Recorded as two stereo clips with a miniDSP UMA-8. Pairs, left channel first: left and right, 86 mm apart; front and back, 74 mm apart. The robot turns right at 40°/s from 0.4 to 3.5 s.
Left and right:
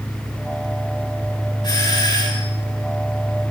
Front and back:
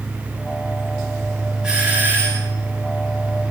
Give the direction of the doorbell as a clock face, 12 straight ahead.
9 o'clock.